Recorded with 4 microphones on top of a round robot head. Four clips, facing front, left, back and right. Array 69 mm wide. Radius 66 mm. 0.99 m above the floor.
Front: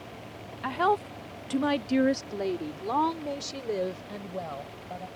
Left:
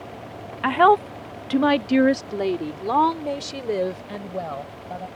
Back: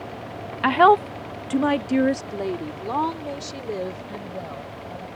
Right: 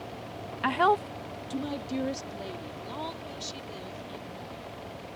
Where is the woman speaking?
155° left; by 5.1 s 90° left.